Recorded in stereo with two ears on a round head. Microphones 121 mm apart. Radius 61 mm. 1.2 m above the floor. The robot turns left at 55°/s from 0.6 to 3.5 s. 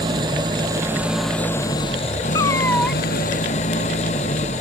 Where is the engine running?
145° right; by 4.6 s 55° left.